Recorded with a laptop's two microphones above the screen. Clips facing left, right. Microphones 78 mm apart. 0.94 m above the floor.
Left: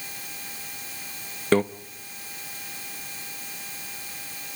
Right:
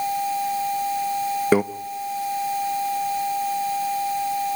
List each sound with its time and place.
1.5 s a microwave: 10° right (ahead or behind), 0.7 m